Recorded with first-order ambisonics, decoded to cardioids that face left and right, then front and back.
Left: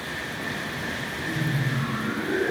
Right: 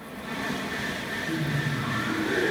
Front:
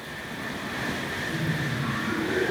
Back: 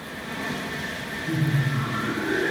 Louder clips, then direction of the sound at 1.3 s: Left 1 dB, back 2 dB; 170° left.